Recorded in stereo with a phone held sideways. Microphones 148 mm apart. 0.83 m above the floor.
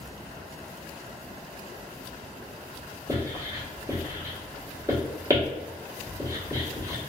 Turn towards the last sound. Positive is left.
turn(degrees=-25)  # may be behind; listen again after turning